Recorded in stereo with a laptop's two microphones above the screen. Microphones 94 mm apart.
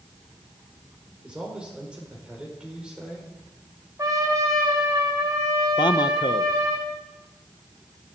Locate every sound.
1.2 s a man speaking: 10° right (ahead or behind), 4 m
4.0 s a trumpet: 35° right (ahead or behind), 2.5 m
5.8 s a man speaking: 50° left (ahead or behind), 0.6 m